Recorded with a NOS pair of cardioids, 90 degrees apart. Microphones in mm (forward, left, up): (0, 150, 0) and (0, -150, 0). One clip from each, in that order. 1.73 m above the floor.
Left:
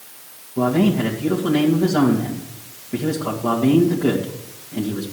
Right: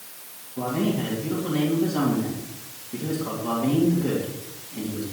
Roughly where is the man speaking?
Ahead left.